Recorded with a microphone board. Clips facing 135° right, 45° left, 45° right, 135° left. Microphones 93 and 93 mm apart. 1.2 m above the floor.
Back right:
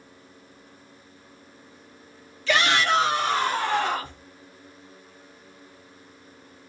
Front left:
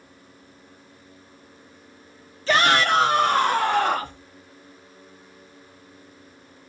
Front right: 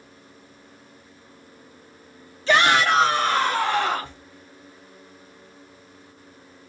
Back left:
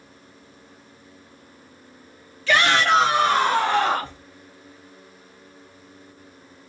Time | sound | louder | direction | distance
2.5 | a shout | front left 3 dB, even | 5° left | 0.8 m